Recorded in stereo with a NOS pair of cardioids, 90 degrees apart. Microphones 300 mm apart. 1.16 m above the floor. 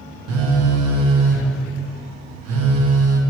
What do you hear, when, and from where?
0.3 s a phone buzzing: 55° right, 1.4 m